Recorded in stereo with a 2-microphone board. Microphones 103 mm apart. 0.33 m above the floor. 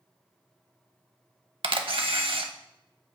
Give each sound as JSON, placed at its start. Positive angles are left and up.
{"t": 1.6, "sound": "a camera shutter", "side_deg": -65, "distance_m": 0.7}